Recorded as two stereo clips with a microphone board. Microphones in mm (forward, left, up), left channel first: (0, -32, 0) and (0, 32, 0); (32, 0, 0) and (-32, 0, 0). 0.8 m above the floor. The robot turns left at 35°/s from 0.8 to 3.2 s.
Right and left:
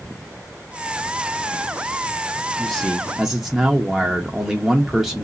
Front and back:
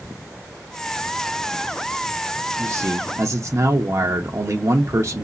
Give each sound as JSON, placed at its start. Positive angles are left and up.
{"t": 2.6, "sound": "a man speaking", "azimuth_deg": -160, "distance_m": 0.7}